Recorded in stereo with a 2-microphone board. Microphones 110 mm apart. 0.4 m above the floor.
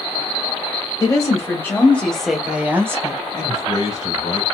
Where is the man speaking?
40° left (ahead or behind), 1.8 m.